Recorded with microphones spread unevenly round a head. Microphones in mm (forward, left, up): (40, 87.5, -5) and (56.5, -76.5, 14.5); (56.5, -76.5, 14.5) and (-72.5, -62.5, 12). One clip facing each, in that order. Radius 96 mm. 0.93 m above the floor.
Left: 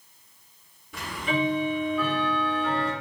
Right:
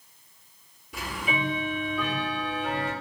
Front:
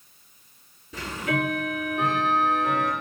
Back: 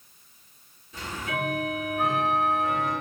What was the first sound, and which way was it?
Ticking, straight ahead.